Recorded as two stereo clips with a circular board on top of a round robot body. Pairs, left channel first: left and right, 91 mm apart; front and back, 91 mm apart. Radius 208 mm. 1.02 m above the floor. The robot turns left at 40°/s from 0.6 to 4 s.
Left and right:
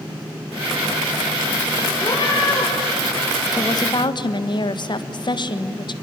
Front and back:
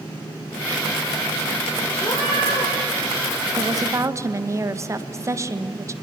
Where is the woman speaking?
140° left, 1.5 m; by 6.0 s 125° left, 1.5 m.